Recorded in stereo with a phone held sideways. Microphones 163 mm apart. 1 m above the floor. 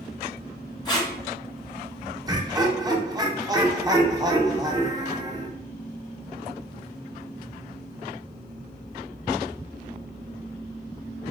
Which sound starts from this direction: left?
Tape being pulled, at 0.8 s.